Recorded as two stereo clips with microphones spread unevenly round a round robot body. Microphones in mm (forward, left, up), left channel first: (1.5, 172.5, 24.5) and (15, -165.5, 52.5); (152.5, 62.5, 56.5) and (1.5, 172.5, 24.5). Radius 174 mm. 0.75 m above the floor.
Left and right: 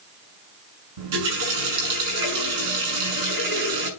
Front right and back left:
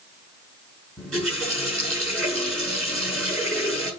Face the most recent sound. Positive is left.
turn(degrees=-125)